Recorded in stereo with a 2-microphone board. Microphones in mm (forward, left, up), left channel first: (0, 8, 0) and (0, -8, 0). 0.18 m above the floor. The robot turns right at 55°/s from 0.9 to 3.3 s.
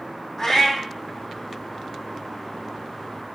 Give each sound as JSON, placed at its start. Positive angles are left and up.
{"t": 0.4, "sound": "a cat meowing", "side_deg": 25, "distance_m": 1.5}